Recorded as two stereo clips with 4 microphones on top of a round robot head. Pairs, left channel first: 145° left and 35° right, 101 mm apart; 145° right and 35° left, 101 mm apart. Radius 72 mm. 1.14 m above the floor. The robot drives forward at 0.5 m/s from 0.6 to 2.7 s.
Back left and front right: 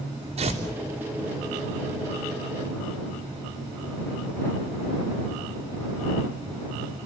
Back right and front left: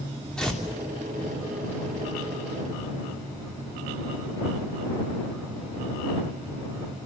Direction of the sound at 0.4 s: 60° right.